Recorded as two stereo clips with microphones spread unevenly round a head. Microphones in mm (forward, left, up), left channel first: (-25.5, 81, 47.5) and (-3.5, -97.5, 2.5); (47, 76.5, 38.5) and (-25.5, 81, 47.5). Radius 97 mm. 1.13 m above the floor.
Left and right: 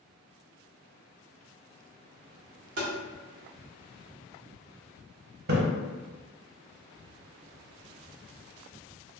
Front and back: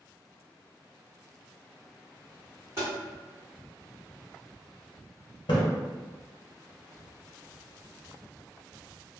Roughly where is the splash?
Ahead right.